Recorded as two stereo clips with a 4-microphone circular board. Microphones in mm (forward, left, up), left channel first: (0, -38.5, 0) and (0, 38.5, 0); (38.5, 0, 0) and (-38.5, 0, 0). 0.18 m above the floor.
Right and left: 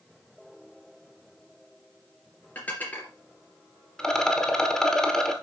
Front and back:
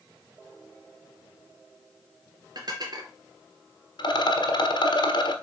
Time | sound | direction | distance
2.5 | dishes clattering | 155° right | 2 m
4.0 | a rattle | 10° right | 1.3 m